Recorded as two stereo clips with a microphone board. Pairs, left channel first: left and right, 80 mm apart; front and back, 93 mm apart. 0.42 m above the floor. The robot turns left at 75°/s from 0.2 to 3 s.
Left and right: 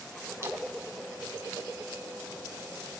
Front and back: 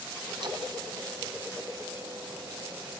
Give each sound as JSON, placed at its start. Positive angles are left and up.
{"t": 0.4, "sound": "a splash", "azimuth_deg": -140, "distance_m": 3.0}